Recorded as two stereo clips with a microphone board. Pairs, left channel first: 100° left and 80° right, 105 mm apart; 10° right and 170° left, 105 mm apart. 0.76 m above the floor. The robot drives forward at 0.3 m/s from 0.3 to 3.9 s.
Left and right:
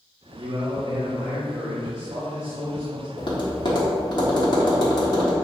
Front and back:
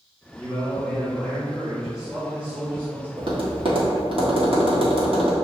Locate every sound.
0.4 s a man speaking: 80° right, 1.4 m; by 3.1 s 120° right, 1.5 m
3.2 s tapping: 135° left, 1.1 m; by 5.3 s 140° left, 1.2 m